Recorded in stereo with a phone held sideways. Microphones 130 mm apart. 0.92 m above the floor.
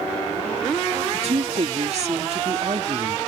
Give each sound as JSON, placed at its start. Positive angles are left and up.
{"t": 1.1, "sound": "a woman speaking", "side_deg": -55}